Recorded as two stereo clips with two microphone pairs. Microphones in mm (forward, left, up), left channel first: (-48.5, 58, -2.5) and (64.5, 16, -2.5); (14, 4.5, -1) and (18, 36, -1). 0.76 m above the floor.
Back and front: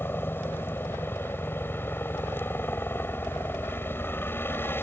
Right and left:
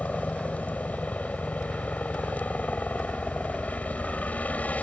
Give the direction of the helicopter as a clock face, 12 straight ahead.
4 o'clock.